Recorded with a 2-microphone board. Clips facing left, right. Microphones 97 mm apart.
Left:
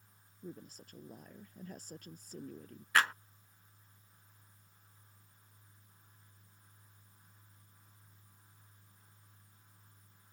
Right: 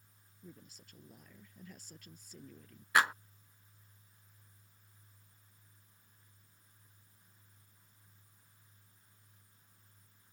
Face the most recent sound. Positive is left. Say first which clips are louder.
# right 1 dB
turn(degrees=-15)  # may be behind; listen again after turning